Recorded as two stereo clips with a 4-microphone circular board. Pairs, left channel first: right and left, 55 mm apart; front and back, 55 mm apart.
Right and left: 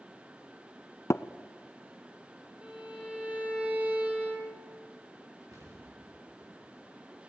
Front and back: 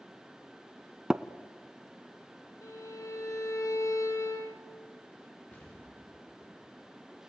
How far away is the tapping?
About 0.8 m.